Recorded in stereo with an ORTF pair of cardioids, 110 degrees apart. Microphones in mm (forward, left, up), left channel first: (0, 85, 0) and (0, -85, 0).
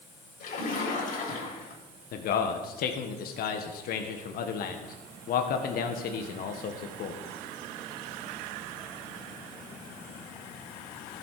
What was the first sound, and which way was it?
A splash, 55° left.